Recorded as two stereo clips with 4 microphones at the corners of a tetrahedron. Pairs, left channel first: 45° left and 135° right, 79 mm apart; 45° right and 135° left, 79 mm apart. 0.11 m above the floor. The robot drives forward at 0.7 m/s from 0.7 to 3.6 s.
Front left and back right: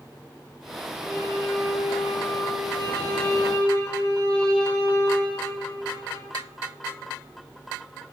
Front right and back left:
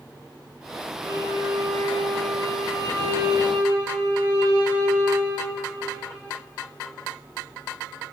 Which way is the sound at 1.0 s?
110° left.